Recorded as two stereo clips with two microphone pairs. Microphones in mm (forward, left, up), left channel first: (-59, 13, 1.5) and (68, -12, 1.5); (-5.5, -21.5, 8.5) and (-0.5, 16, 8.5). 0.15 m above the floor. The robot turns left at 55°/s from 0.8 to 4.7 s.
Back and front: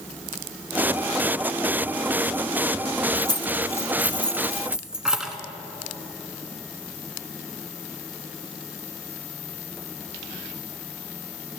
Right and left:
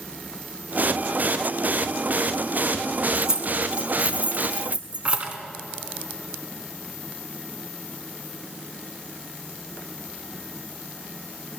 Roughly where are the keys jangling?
Behind left.